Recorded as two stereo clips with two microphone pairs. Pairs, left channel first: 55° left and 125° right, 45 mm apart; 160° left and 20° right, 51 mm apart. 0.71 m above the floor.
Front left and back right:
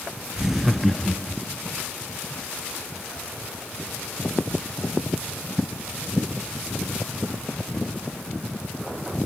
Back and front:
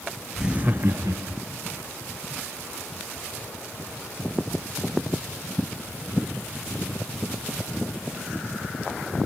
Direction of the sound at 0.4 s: 100° right.